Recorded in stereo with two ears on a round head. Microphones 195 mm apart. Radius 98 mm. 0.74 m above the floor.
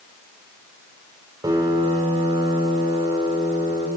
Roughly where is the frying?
No frying in this recording.